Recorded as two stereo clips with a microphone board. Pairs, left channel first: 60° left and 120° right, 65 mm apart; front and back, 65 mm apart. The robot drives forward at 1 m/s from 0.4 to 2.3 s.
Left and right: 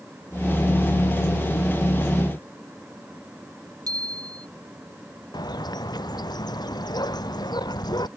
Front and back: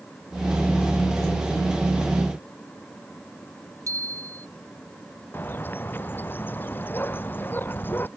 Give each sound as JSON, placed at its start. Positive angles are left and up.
{"t": 3.9, "sound": "a bicycle bell", "azimuth_deg": -140}
{"t": 5.3, "sound": "a bird", "azimuth_deg": 60}